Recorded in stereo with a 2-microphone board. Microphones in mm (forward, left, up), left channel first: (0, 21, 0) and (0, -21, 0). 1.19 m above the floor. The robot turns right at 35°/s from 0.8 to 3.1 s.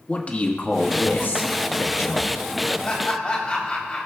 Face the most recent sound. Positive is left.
turn(degrees=25)  # may be behind; listen again after turning